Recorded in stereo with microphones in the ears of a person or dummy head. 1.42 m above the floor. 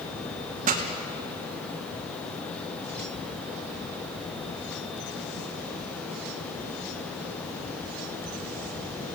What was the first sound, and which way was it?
A pop, 40° right (ahead or behind).